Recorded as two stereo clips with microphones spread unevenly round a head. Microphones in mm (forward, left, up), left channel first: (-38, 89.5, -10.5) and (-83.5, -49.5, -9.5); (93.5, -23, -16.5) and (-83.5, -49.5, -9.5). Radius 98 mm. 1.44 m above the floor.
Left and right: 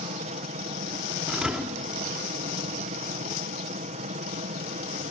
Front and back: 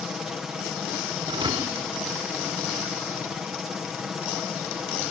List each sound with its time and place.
0.0 s a helicopter: 85° right
1.3 s a thud: 175° left